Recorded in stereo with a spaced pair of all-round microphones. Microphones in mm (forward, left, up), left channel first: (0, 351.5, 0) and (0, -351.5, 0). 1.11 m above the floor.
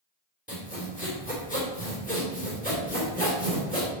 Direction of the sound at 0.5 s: 10° left (ahead or behind).